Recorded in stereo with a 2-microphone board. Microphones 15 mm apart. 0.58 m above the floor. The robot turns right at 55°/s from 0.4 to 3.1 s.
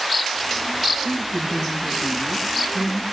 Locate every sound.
1.0 s a woman speaking: 80° left, 5 m; by 3.0 s 170° right, 5 m